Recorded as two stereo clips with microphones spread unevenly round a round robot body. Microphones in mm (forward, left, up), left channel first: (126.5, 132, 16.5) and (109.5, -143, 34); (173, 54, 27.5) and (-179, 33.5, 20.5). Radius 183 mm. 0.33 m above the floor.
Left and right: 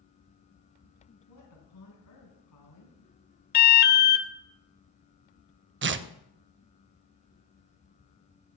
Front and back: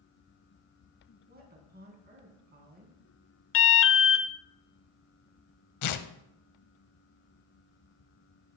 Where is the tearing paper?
40° right, 0.6 m.